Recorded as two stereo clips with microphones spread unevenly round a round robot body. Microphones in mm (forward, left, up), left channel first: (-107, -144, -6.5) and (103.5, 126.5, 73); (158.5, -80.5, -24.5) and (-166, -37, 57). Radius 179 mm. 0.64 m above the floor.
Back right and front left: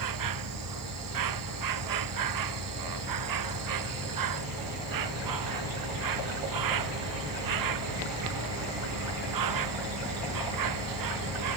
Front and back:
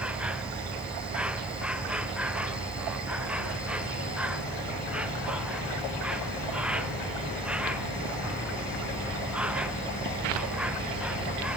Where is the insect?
85° left.